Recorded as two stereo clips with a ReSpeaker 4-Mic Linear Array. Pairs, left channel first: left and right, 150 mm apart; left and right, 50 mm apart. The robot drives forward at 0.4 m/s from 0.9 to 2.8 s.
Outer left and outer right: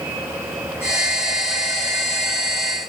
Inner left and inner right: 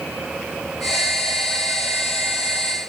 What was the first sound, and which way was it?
Only background noise.